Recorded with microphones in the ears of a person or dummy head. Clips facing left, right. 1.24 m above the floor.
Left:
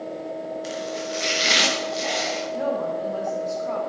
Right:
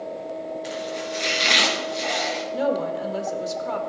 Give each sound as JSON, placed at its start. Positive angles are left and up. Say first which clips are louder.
{"t": 0.6, "sound": "chopping", "louder": "even", "side_deg": 0, "distance_m": 1.5}
{"t": 2.5, "sound": "a woman speaking", "louder": "right 2 dB", "side_deg": -55, "distance_m": 1.7}